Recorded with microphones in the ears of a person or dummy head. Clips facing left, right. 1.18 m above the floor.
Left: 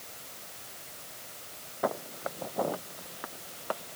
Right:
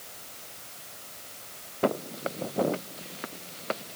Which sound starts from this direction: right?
Footsteps, at 1.8 s.